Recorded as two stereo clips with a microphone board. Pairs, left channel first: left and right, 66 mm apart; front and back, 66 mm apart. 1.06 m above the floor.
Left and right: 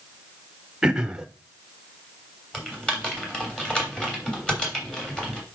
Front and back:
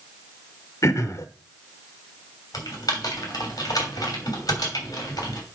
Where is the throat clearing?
15° right, 0.9 m.